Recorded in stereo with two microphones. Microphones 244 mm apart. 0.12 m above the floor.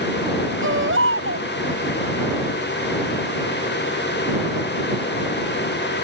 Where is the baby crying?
55° right (ahead or behind).